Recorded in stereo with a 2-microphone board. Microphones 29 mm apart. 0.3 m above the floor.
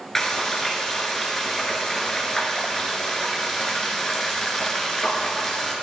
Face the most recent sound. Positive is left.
turn(degrees=10)  # may be behind; listen again after turning